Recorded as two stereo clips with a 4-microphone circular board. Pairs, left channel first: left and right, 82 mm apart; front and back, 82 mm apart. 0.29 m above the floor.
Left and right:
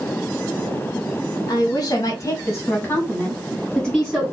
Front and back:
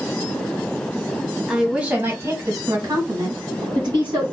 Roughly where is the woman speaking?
Left.